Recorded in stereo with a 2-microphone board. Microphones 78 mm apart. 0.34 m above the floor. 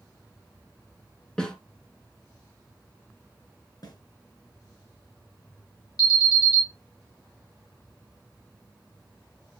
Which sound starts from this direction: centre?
A snare drum, at 1.4 s.